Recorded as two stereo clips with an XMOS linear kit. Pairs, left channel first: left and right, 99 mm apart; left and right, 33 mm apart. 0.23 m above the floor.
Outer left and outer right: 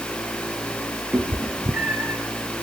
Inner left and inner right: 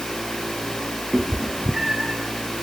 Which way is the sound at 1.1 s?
10° right (ahead or behind).